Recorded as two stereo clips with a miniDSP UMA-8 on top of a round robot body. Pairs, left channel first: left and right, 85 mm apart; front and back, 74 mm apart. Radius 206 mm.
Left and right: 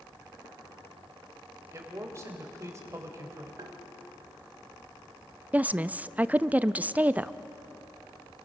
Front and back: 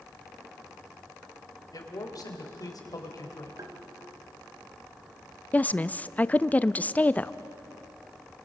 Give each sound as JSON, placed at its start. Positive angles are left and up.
{"t": 1.7, "sound": "a man speaking", "azimuth_deg": -35, "distance_m": 3.5}
{"t": 3.6, "sound": "tapping", "azimuth_deg": -135, "distance_m": 1.6}
{"t": 5.5, "sound": "a woman speaking", "azimuth_deg": -40, "distance_m": 0.7}